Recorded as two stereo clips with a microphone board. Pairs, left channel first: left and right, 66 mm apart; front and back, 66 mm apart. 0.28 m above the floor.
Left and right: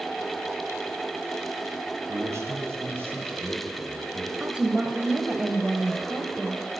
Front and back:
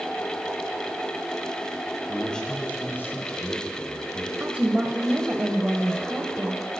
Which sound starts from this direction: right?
A man speaking, at 2.1 s.